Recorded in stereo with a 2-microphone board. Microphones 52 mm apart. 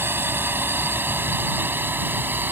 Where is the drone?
45° right (ahead or behind); by 2.5 s 40° right (ahead or behind).